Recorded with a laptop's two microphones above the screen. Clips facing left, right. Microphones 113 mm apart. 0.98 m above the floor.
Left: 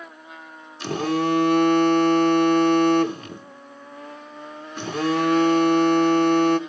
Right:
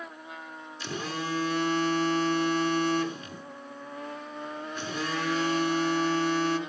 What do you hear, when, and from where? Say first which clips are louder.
0.8 s a phone buzzing: left 12 dB; 60° left (ahead or behind), 0.9 m